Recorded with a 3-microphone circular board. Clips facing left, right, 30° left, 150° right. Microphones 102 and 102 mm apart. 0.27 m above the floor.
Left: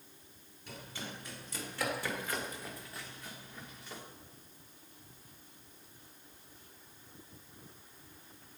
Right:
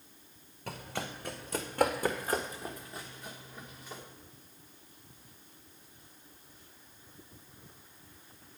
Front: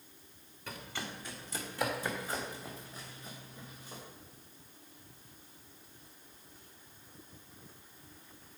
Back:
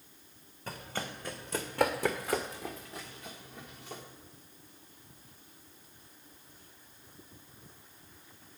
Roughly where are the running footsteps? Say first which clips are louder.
Right 6 dB, back 3 dB; right.